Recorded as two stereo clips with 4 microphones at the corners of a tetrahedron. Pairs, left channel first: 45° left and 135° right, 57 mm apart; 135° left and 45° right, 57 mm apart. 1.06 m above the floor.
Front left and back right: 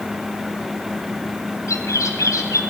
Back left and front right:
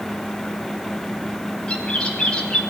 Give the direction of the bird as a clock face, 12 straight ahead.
10 o'clock.